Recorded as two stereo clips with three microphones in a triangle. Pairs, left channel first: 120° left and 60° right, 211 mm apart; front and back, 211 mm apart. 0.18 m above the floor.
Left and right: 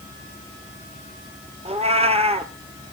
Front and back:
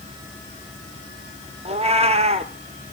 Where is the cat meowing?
120° right, 1.2 m.